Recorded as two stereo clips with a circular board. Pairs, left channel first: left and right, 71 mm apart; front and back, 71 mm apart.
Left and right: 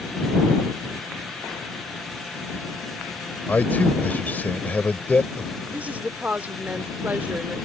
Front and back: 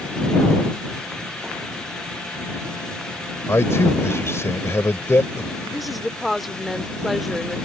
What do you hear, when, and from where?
3.5 s a man speaking: 35° left
5.7 s a woman speaking: 95° right